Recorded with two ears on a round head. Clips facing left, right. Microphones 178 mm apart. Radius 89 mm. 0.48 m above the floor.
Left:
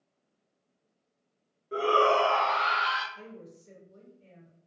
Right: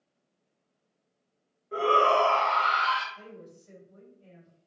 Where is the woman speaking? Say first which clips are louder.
Even; 40° left (ahead or behind), 1.9 m.